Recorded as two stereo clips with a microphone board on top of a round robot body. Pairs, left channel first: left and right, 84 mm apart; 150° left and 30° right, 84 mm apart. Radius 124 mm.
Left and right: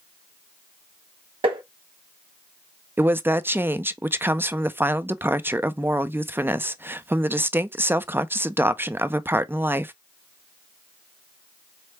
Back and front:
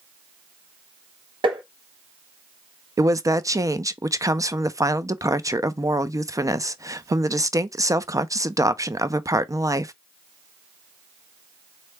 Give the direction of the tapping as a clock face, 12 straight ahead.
2 o'clock.